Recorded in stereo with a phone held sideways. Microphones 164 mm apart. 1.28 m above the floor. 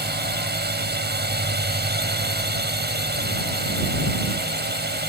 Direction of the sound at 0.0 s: 70° right (ahead or behind).